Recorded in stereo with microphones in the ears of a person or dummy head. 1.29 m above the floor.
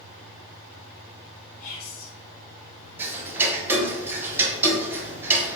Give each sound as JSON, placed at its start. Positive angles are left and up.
{"t": 1.6, "sound": "whispering", "side_deg": 50, "distance_m": 1.9}
{"t": 3.0, "sound": "ticking", "side_deg": -15, "distance_m": 0.7}